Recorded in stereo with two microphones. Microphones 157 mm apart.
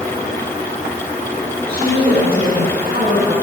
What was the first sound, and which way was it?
A woman speaking, 70° right (ahead or behind).